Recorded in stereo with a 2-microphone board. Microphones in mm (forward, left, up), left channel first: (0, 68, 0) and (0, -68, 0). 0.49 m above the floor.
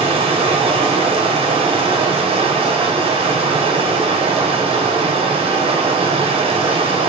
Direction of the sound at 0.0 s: 50° right (ahead or behind).